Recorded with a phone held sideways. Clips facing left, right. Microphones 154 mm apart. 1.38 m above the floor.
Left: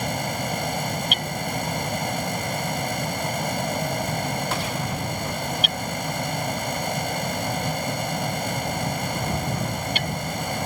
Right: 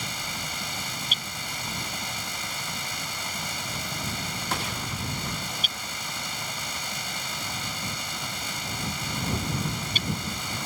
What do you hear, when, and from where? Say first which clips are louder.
0.0 s a fan: left 10 dB; 55° left (ahead or behind)
1.1 s hammering: left 11 dB; 70° left (ahead or behind)